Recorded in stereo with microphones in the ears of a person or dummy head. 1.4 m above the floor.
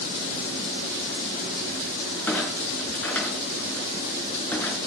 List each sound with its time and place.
2.3 s a clunk: 5° left (ahead or behind), 4 m